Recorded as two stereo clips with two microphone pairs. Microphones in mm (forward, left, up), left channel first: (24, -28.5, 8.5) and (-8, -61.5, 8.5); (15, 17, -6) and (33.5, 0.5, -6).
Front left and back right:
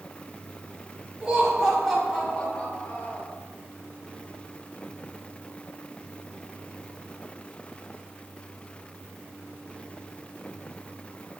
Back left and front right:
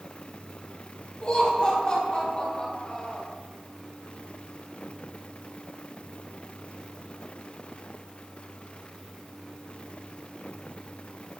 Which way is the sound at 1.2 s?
160° left.